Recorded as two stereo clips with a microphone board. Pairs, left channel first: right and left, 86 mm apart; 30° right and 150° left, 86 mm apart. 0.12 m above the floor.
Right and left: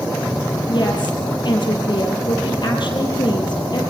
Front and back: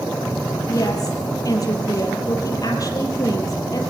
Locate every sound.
0.7 s a woman speaking: 70° right, 4 m